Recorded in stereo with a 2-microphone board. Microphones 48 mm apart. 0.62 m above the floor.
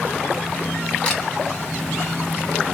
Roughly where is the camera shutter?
Left.